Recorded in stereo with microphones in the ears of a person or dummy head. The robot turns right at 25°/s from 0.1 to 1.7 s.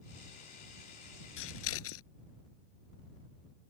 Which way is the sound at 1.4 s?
75° left (ahead or behind).